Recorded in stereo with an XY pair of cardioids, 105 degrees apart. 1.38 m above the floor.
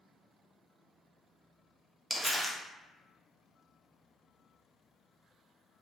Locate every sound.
2.1 s crumpling: 5° right, 0.6 m